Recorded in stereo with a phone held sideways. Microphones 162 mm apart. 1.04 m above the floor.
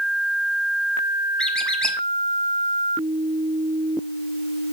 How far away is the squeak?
About 0.9 m.